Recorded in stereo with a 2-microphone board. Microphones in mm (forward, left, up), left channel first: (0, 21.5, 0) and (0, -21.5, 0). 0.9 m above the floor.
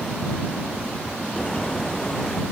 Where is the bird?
10° left (ahead or behind).